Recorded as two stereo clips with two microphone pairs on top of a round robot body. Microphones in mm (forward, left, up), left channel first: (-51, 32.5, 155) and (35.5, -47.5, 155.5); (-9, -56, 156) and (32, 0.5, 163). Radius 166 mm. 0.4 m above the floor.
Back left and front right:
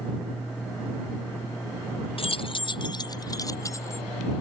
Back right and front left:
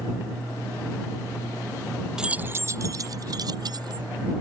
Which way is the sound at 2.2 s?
135° left.